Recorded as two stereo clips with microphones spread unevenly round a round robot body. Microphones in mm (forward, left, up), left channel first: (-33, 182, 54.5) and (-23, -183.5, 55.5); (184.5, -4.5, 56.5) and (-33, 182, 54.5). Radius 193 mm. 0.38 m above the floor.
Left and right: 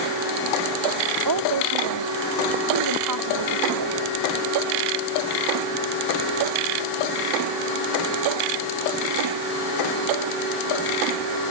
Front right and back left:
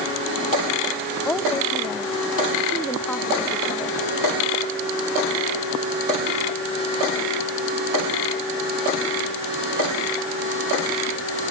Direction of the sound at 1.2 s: 125° right.